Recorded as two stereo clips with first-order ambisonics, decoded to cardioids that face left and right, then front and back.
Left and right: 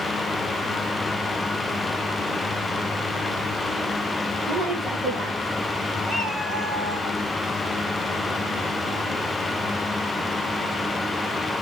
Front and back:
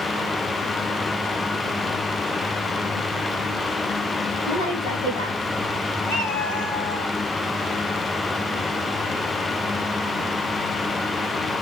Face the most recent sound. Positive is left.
turn(degrees=20)